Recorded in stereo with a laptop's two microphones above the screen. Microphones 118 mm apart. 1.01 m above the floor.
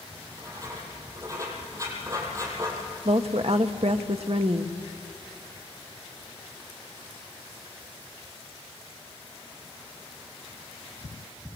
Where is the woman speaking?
65° right (ahead or behind), 1.1 m.